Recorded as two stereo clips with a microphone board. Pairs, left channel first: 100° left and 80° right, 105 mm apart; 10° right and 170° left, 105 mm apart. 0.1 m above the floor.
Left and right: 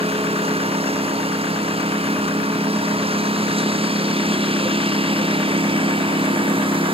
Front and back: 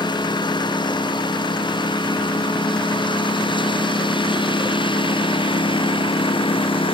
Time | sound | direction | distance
0.0 | a lawn mower | 55° right | ?